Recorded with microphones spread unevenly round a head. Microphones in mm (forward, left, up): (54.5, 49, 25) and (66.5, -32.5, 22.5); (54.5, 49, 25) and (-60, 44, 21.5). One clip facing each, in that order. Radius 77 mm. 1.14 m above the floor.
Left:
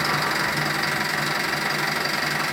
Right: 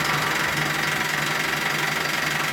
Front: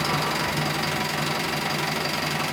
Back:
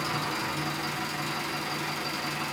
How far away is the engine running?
About 0.8 m.